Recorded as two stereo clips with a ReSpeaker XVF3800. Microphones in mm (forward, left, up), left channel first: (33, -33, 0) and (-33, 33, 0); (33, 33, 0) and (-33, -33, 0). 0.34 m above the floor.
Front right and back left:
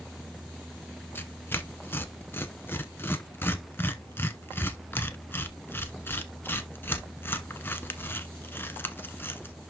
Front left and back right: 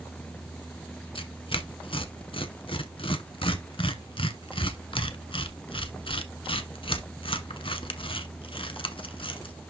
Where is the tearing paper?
20° left, 0.9 m.